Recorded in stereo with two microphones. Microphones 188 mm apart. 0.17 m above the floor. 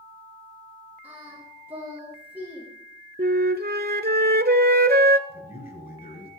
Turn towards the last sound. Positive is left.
turn(degrees=50)  # may be behind; listen again after turning